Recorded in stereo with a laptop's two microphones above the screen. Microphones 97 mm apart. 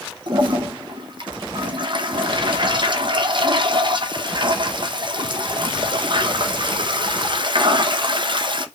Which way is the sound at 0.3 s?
50° right (ahead or behind).